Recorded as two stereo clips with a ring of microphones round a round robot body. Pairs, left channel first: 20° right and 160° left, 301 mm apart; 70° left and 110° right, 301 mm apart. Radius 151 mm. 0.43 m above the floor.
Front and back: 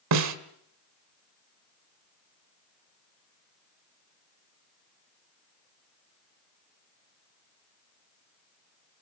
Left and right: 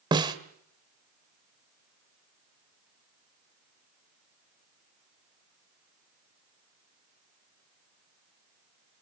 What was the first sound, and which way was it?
A snare drum, 175° left.